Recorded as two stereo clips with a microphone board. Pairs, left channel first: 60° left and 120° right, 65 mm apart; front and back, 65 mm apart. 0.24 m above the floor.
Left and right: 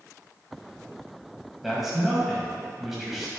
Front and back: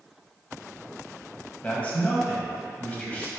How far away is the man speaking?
About 1.7 m.